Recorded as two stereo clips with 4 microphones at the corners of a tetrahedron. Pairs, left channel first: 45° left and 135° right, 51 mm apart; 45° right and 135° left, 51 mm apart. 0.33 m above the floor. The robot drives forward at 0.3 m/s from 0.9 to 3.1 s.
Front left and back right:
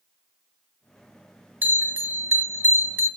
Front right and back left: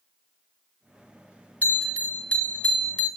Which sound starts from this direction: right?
A bell, at 1.6 s.